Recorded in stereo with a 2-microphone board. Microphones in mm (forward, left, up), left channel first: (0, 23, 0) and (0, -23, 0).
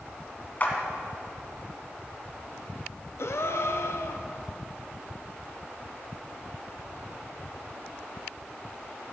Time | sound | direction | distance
0.6 | a clap | 40° left (ahead or behind) | 2 m
3.2 | a gasp | 75° left (ahead or behind) | 0.8 m